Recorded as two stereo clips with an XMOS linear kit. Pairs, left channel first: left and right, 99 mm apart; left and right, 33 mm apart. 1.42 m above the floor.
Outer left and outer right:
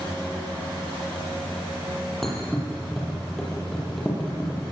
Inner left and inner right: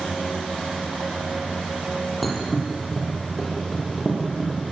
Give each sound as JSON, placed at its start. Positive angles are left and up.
{"t": 2.2, "sound": "a thud", "side_deg": 5, "distance_m": 7.0}